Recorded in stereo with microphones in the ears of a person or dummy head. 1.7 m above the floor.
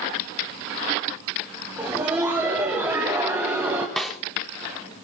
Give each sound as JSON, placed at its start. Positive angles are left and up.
{"t": 1.8, "sound": "laughter", "side_deg": -15, "distance_m": 1.7}
{"t": 4.0, "sound": "a snare drum", "side_deg": 0, "distance_m": 0.8}